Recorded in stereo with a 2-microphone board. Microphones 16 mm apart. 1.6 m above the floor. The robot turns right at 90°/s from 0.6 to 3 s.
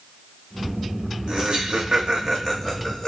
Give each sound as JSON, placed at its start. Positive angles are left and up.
{"t": 1.3, "sound": "laughter", "side_deg": -50, "distance_m": 0.9}